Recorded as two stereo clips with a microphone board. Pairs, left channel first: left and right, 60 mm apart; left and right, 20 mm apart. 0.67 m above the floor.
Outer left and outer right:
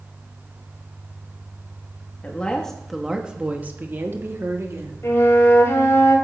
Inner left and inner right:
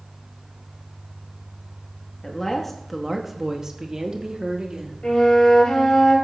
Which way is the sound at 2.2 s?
25° left (ahead or behind).